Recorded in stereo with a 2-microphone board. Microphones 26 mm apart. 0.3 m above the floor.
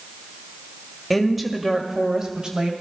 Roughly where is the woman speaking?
Centre.